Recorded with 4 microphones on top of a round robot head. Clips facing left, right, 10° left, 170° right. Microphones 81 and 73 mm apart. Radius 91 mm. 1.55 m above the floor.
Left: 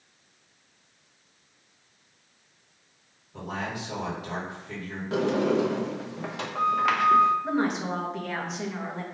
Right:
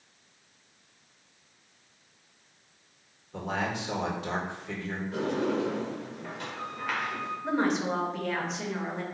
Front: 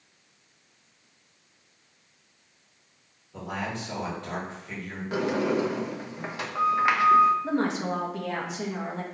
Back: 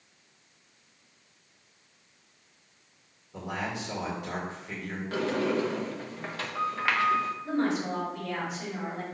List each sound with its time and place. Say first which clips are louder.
3.3 s a man speaking: right 2 dB, front 1 dB; 85° right, 2.5 m
5.1 s a sliding door: left 6 dB, front 2 dB; 90° left, 0.7 m
7.4 s a woman speaking: even, front 1 dB; 5° left, 1.9 m